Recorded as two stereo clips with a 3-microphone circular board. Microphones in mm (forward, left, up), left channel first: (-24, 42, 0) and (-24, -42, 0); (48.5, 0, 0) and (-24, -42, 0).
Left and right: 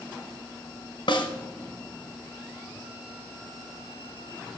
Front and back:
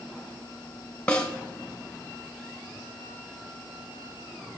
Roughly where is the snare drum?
Left.